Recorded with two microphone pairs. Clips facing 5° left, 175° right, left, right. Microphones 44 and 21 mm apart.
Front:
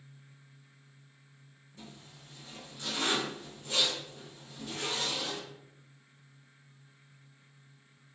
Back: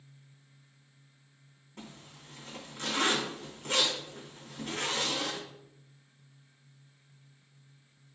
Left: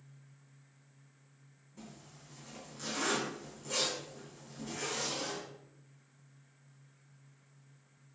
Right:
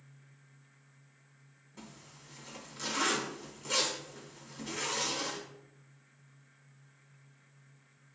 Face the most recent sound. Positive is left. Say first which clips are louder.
# back 2 dB, right 1 dB
turn(degrees=-150)